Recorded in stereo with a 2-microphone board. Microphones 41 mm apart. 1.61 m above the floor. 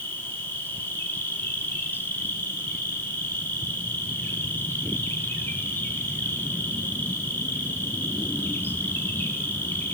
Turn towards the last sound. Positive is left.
turn(degrees=60)  # may be behind; listen again after turning